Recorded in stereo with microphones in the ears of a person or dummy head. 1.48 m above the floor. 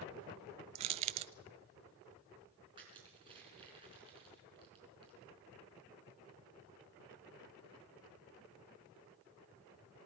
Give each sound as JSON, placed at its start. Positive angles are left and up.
{"t": 0.8, "sound": "crushing", "side_deg": -30, "distance_m": 0.6}
{"t": 2.8, "sound": "crushing", "side_deg": -25, "distance_m": 5.5}